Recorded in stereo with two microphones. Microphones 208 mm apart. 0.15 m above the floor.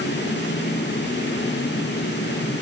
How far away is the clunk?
No clunk in this recording.